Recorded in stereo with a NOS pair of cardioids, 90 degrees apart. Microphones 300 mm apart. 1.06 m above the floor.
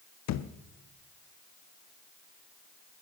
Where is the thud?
65° left, 1.0 m.